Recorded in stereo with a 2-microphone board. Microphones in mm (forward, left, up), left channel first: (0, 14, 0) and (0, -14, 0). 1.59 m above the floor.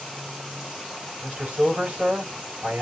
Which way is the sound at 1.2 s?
75° right (ahead or behind).